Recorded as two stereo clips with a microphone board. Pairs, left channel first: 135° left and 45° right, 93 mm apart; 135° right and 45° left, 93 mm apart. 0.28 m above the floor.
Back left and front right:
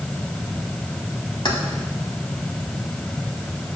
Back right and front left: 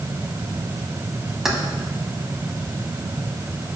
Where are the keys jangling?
130° left, 1.2 m.